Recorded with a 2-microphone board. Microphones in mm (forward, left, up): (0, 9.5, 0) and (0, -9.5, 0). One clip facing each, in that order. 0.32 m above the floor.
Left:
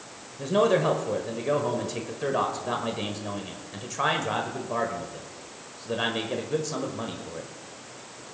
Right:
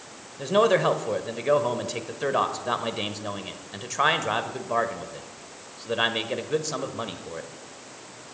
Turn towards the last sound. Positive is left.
turn(degrees=-25)  # may be behind; listen again after turning